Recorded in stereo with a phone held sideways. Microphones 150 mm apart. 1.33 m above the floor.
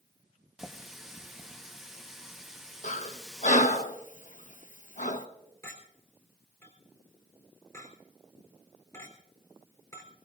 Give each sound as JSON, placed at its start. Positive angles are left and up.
{"t": 0.6, "sound": "a running tap", "side_deg": -5, "distance_m": 1.1}
{"t": 2.8, "sound": "breathing", "side_deg": 60, "distance_m": 0.9}
{"t": 5.6, "sound": "a clink", "side_deg": 20, "distance_m": 3.5}